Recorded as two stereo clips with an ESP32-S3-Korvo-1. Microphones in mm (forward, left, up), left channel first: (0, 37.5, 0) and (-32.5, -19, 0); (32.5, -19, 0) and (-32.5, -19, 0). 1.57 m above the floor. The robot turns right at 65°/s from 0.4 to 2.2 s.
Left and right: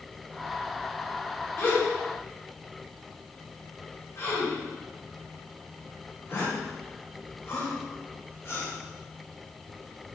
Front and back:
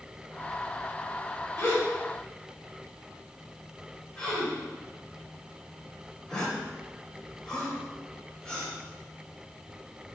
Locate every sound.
1.6 s a gasp: 25° left, 1.7 m; by 8.7 s 65° left, 1.7 m